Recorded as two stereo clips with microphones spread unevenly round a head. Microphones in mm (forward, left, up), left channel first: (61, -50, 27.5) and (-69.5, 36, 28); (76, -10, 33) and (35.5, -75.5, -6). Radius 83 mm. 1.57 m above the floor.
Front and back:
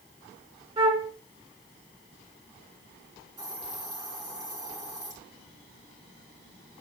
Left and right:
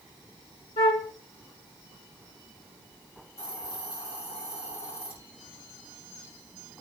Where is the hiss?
80° left, 5 m.